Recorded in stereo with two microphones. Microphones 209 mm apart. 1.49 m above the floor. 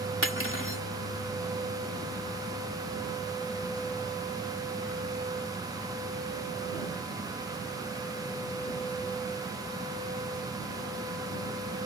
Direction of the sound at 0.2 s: 75° left (ahead or behind).